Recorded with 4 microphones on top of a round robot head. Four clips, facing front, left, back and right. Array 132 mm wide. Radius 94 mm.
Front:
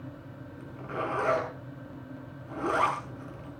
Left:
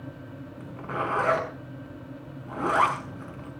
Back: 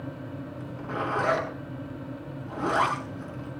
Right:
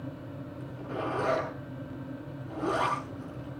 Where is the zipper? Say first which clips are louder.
Left 4 dB, back 1 dB; 115° left, 6.5 m.